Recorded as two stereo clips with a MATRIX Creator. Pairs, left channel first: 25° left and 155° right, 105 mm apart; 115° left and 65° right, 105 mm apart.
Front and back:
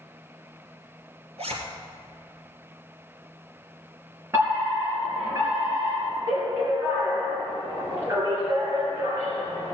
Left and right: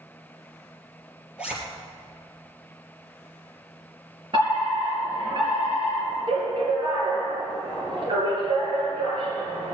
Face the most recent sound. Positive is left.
turn(degrees=-95)